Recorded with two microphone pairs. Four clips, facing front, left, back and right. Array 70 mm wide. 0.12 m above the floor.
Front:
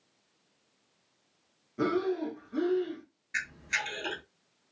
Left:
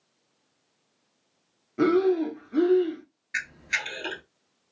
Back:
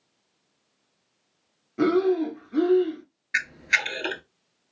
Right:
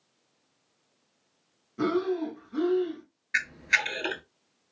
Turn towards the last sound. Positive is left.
turn(degrees=-145)